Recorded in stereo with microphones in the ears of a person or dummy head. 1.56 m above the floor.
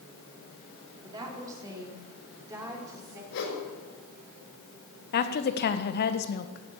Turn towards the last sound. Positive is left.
turn(degrees=50)  # may be behind; listen again after turning